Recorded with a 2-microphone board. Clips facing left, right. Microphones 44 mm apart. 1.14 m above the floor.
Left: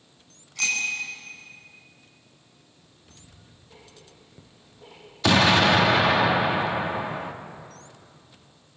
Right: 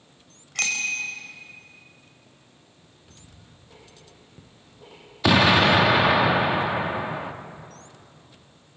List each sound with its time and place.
0.6 s a bicycle bell: 60° right (ahead or behind), 4.5 m
2.8 s ticking: 20° right (ahead or behind), 9.5 m
5.2 s an explosion: 10° right (ahead or behind), 1.1 m